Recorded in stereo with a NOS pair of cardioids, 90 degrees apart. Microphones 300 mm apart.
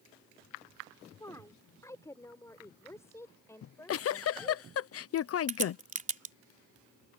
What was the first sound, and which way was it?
A woman speaking, 10° left.